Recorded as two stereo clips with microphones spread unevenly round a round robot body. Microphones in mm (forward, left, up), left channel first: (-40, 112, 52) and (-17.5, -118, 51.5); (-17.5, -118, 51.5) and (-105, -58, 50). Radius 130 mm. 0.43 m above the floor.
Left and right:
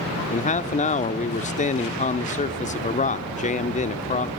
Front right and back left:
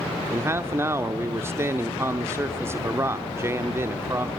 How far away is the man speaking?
About 0.9 m.